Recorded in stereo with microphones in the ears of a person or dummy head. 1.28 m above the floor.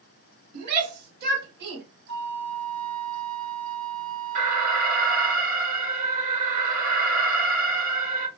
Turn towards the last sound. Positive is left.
turn(degrees=-45)  # may be behind; listen again after turning